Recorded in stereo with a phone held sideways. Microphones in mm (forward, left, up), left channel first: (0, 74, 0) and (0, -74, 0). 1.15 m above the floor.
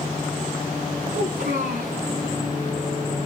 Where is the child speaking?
75° right (ahead or behind), 6 m.